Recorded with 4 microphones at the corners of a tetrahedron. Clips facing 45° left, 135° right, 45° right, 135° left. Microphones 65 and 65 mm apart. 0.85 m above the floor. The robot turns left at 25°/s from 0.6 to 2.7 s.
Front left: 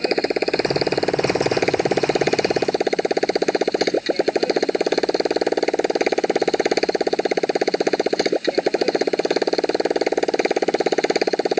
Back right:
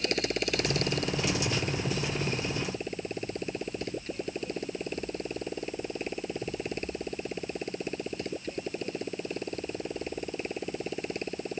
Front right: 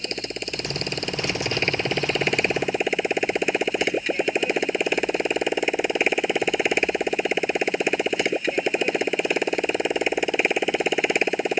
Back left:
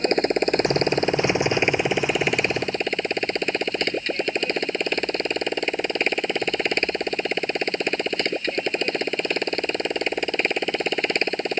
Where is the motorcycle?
90° left; by 11.6 s 35° left.